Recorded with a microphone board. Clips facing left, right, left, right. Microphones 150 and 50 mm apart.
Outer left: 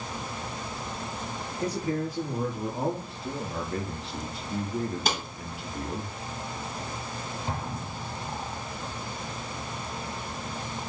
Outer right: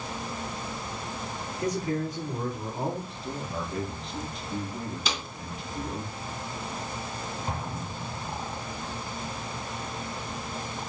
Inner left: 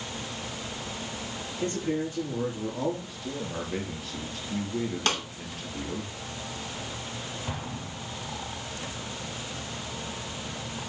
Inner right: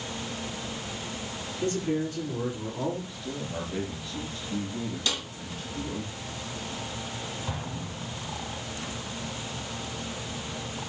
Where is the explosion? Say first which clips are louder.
Even, even; 25° left (ahead or behind), 5 m.